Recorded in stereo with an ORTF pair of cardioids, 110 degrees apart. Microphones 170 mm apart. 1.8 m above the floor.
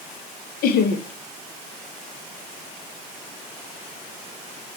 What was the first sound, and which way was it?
Laughter, 65° left.